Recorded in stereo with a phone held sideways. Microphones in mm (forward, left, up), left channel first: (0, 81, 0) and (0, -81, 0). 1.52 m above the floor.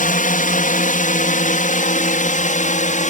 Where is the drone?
55° left (ahead or behind); by 3.1 s 50° left (ahead or behind).